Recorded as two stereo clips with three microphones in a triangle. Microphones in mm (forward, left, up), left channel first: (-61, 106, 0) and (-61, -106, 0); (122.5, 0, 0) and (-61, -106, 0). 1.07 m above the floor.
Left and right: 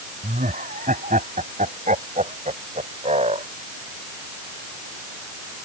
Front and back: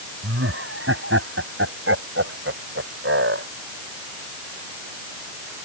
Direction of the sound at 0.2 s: 140° right.